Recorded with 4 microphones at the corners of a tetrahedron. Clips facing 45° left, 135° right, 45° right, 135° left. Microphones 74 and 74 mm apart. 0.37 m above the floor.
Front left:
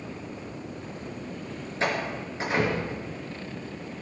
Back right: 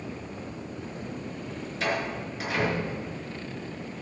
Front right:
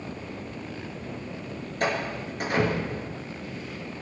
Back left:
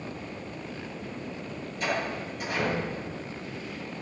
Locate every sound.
1.8 s a door slam: 15° right, 5 m